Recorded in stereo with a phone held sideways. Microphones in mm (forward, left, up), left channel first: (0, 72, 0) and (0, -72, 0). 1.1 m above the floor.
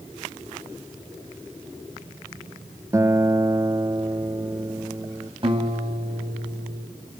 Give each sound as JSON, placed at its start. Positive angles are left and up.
{"t": 2.9, "sound": "a guitar", "side_deg": -20, "distance_m": 0.6}
{"t": 5.4, "sound": "a guitar", "side_deg": -35, "distance_m": 5.0}